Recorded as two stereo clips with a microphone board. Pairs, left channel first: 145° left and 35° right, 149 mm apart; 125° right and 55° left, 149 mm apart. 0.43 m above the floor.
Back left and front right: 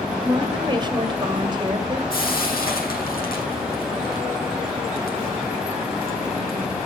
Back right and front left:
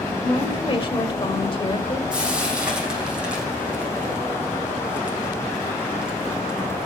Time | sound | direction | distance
0.2 | a woman speaking | 80° right | 1.9 m
2.1 | frying | 140° left | 5 m